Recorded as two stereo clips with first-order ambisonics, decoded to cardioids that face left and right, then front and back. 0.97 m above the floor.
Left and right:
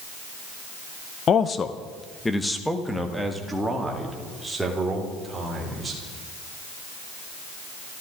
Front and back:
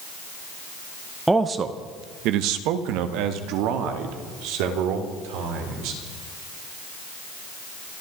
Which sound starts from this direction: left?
A man speaking, at 1.3 s.